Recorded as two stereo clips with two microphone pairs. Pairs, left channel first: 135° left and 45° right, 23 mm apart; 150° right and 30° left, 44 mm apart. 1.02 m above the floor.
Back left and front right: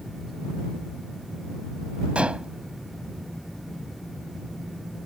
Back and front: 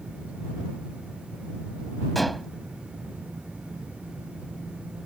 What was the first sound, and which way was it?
Dishes clattering, 65° right.